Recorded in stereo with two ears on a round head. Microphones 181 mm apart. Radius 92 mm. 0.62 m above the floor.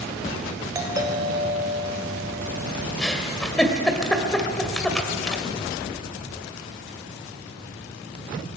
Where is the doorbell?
20° right (ahead or behind), 3 m.